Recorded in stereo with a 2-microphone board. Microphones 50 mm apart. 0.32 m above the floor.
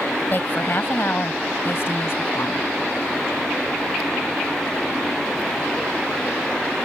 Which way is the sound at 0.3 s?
45° left (ahead or behind).